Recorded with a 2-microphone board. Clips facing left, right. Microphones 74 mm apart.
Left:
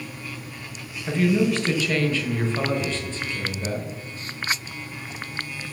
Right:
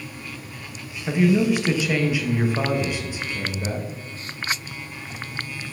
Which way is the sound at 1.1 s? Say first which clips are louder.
Right 2 dB; 10° right (ahead or behind).